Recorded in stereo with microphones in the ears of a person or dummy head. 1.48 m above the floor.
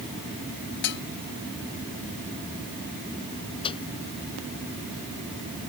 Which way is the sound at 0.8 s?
60° left (ahead or behind).